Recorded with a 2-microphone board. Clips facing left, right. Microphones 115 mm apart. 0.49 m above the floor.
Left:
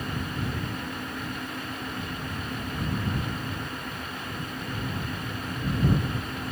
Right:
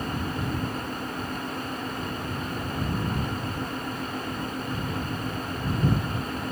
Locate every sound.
Only background noise.